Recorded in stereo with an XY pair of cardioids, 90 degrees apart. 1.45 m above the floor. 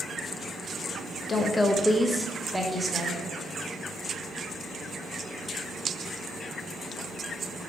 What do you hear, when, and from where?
1.3 s a woman speaking: 45° left, 0.6 m; by 3.2 s 25° right, 1.5 m